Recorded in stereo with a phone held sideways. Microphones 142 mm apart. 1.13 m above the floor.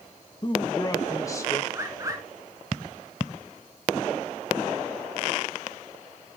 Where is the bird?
20° right (ahead or behind), 2.5 m.